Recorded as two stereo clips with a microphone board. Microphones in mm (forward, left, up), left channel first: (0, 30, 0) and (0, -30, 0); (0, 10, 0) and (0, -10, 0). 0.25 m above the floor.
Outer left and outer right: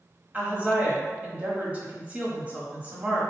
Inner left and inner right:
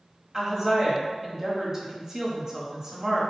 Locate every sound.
0.3 s a woman speaking: 25° right (ahead or behind), 1.1 m